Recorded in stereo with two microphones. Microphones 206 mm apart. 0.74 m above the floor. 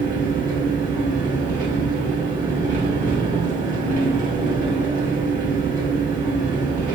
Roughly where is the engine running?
Right.